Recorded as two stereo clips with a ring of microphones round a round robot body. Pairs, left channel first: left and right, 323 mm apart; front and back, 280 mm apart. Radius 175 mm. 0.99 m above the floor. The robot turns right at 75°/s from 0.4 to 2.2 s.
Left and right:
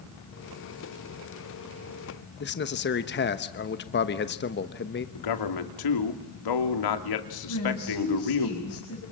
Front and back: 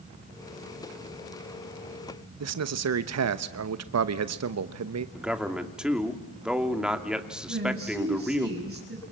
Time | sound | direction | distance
2.4 | a man speaking | 150° left | 1.0 m
5.2 | a man speaking | 90° left | 3 m
7.5 | a woman speaking | 135° left | 6 m